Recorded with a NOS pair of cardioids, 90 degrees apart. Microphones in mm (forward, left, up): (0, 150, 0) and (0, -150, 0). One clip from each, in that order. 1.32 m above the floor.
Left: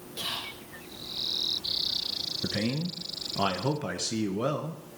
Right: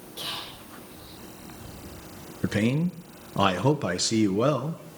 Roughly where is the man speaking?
Ahead right.